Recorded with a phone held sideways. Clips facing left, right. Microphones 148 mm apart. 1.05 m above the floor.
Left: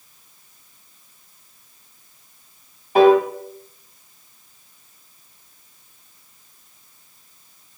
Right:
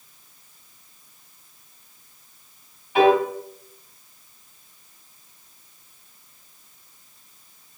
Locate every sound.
3.0 s a piano: 40° left (ahead or behind), 1.8 m